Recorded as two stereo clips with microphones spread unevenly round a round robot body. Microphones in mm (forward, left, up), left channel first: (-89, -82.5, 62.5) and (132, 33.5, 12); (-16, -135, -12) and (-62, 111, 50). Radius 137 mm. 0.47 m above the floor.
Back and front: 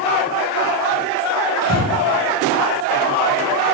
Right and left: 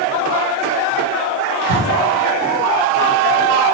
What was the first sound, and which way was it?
Breathing, 55° right.